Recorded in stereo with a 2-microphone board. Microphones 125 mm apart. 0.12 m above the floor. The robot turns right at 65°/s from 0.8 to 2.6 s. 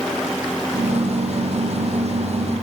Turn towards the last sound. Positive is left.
No sound to turn to.